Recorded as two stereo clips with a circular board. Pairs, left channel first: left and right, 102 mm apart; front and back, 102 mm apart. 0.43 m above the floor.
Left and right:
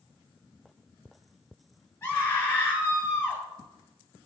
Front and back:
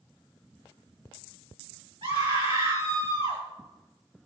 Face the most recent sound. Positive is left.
turn(degrees=150)